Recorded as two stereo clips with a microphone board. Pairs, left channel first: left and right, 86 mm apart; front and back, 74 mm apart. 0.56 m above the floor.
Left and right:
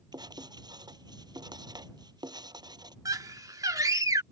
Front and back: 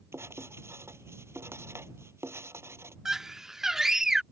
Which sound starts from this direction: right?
A scream, at 3.0 s.